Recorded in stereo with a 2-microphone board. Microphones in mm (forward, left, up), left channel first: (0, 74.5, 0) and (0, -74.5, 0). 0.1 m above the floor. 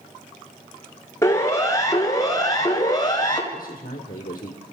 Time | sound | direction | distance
1.2 | a siren | 20° left (ahead or behind) | 2.5 m
3.5 | a man speaking | 65° left (ahead or behind) | 3 m